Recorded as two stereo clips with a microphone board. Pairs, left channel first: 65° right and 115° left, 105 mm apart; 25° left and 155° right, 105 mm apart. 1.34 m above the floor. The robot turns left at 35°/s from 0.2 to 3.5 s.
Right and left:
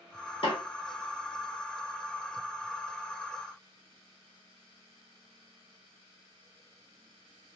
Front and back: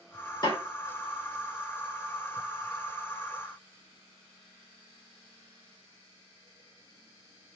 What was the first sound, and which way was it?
A snare drum, 30° right.